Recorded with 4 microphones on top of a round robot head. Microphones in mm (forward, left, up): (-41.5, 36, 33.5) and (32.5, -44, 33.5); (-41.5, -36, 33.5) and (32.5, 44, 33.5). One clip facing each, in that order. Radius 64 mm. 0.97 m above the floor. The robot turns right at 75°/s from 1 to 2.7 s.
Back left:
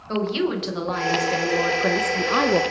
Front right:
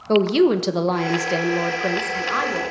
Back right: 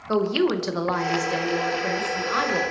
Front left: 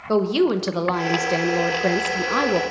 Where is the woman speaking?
20° right, 0.9 m; by 2.6 s 100° left, 0.9 m.